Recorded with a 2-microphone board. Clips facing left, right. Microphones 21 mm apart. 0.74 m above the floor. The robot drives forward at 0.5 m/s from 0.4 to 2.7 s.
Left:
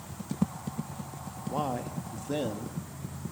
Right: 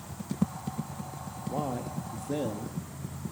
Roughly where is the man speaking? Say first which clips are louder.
Left 1 dB; left.